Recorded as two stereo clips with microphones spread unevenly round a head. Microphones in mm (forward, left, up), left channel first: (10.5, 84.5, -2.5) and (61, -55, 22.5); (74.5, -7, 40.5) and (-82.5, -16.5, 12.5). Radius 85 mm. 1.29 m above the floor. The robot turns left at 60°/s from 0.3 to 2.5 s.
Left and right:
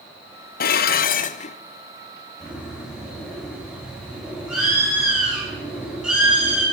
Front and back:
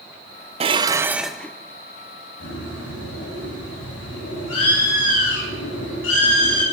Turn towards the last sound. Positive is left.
turn(degrees=15)